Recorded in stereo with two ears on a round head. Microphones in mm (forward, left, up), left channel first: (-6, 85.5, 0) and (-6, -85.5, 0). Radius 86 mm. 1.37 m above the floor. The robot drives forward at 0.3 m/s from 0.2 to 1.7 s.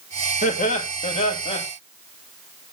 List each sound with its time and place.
0.4 s laughter: 40° left (ahead or behind), 1.5 m; by 1.6 s 30° left (ahead or behind), 1.8 m